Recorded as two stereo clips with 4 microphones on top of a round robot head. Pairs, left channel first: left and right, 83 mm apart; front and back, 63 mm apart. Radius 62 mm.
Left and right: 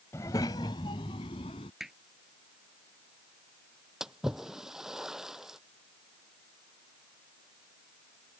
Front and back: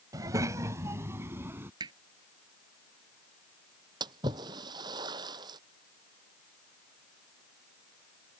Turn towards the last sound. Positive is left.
turn(degrees=-175)